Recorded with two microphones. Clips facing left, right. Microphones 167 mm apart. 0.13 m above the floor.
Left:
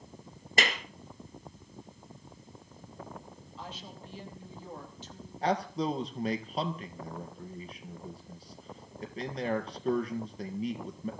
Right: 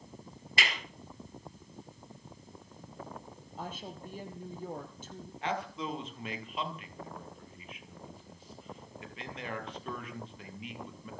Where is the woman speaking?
50° right (ahead or behind), 4 m.